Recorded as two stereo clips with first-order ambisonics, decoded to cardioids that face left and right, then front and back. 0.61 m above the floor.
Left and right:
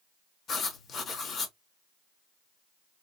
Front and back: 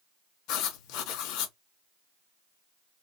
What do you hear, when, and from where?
0.5 s writing: 25° left, 0.5 m